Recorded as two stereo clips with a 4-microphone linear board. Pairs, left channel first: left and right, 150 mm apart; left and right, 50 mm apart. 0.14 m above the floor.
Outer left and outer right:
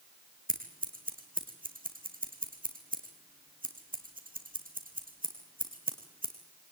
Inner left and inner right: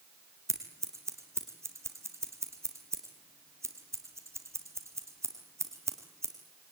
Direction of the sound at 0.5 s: 65° right (ahead or behind).